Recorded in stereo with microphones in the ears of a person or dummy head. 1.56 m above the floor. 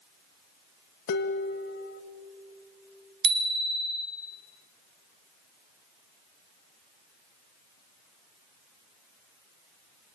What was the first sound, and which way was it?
Dishes clattering, 60° left (ahead or behind).